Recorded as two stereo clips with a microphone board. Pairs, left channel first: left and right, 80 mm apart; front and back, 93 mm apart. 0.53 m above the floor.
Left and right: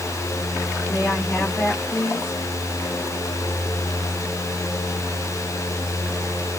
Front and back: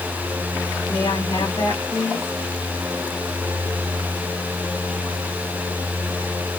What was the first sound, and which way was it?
A woman speaking, 40° left.